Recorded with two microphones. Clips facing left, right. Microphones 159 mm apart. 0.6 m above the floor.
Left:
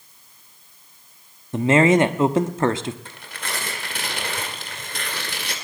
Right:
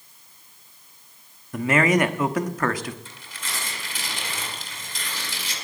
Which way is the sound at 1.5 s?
25° left (ahead or behind).